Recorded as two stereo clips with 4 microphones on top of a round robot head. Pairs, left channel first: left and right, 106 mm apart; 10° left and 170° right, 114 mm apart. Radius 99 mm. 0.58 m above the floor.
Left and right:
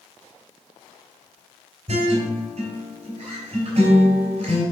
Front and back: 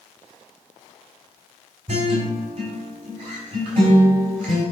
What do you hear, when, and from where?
1.9 s a guitar: 125° right, 3.5 m